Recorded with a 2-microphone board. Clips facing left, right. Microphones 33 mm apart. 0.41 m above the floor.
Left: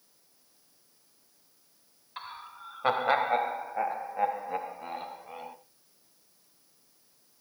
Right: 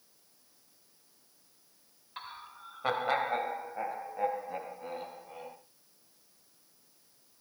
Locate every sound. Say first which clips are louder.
2.2 s laughter: left 3 dB; 10° left (ahead or behind), 1.8 m; by 5.5 s 30° left (ahead or behind), 4 m